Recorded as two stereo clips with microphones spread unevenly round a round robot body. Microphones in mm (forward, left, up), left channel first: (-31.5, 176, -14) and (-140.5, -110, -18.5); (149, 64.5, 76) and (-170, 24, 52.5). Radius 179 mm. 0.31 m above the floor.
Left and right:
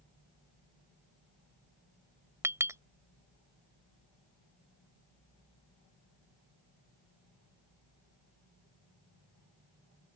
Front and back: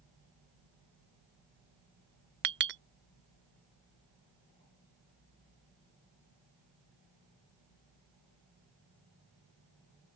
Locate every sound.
2.4 s a clink: 175° left